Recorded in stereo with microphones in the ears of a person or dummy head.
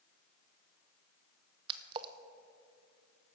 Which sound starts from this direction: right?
A splash, at 1.7 s.